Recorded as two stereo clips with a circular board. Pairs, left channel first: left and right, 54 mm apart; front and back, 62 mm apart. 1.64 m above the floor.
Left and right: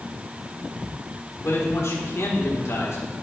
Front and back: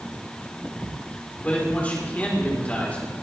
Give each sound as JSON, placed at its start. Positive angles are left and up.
{"t": 1.4, "sound": "a man speaking", "azimuth_deg": 65, "distance_m": 4.0}